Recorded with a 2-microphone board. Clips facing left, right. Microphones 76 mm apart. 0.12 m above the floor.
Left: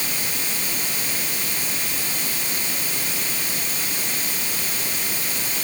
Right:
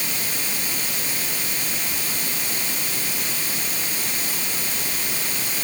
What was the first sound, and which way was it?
Only background noise.